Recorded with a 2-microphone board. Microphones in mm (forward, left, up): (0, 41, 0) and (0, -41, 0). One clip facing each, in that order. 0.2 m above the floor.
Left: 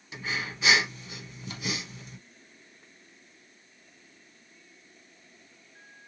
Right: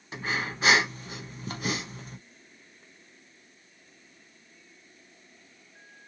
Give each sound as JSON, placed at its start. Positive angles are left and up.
{"t": 0.1, "sound": "breathing", "side_deg": -45, "distance_m": 0.7}